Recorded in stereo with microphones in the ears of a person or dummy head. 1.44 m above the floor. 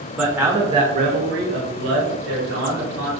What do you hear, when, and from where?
0.2 s a man speaking: 5° right (ahead or behind), 0.7 m; by 3.1 s 70° right (ahead or behind), 1.3 m